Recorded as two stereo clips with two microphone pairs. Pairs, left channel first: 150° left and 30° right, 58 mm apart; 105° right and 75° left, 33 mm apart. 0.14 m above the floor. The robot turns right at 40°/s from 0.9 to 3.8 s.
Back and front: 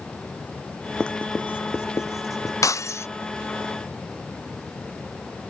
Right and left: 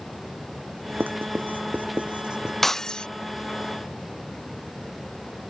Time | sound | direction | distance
1.0 | writing | 75° left | ?
2.6 | breaking glass | 170° left | ?